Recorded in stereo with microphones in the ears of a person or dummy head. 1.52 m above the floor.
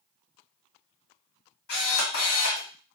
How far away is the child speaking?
I don't hear a child speaking.